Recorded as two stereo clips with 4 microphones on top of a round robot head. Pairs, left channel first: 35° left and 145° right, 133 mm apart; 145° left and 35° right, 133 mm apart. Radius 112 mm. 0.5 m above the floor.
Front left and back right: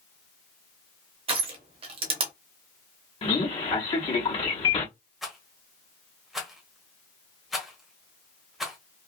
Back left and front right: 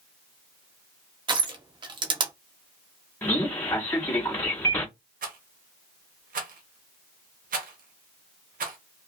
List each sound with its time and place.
1.3 s crushing: 95° right, 0.7 m
3.2 s a man speaking: 70° left, 1.0 m
5.2 s a rattle: 55° right, 0.8 m